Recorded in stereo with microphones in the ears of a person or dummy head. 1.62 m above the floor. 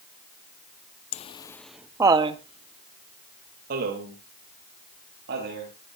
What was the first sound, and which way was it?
Laughter, 30° left (ahead or behind).